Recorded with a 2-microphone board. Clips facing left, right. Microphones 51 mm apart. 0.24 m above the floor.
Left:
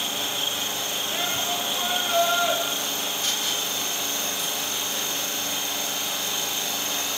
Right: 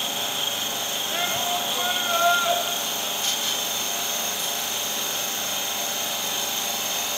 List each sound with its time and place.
1.1 s a shout: 20° right (ahead or behind), 1.2 m